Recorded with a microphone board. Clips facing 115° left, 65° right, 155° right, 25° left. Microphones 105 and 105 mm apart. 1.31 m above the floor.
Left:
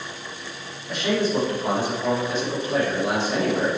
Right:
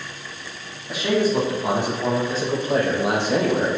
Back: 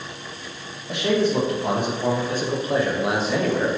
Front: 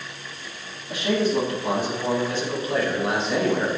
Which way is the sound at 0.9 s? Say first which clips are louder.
Right 2 dB, back 2 dB; 150° right.